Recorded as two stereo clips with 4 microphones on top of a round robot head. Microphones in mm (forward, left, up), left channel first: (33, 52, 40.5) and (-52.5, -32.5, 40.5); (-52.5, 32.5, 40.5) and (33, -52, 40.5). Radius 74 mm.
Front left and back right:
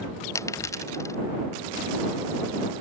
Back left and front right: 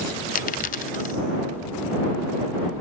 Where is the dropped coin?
110° left.